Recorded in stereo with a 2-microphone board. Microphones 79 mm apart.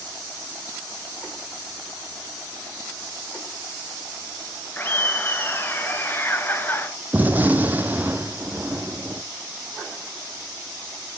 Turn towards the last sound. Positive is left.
turn(degrees=-20)  # may be behind; listen again after turning